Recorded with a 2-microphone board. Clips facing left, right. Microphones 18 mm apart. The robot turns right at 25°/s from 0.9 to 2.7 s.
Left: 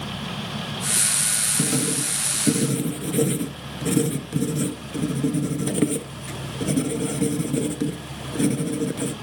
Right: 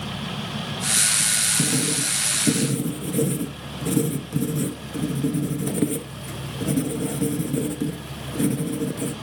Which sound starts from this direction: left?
Writing, at 1.6 s.